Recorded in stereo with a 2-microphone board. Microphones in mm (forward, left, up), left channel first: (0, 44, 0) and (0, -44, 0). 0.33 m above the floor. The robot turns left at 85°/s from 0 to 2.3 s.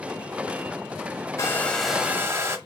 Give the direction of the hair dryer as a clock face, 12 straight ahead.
11 o'clock.